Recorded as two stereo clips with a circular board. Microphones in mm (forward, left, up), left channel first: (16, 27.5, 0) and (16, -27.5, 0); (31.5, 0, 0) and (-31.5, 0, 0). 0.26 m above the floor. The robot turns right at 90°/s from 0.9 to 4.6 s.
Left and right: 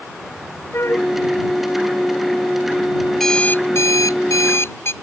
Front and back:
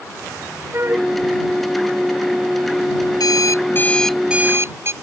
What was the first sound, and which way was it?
A flute, 130° left.